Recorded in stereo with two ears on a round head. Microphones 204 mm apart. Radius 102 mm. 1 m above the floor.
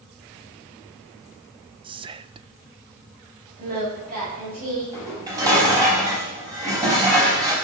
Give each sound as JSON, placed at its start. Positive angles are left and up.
{"t": 1.8, "sound": "whispering", "side_deg": -20, "distance_m": 0.5}
{"t": 3.6, "sound": "singing", "side_deg": -40, "distance_m": 8.5}
{"t": 4.9, "sound": "dishes clattering", "side_deg": -15, "distance_m": 5.0}